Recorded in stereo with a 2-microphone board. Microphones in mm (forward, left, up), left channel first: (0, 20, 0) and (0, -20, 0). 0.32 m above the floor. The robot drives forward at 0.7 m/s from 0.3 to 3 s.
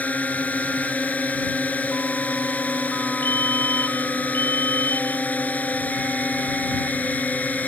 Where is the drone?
45° left (ahead or behind).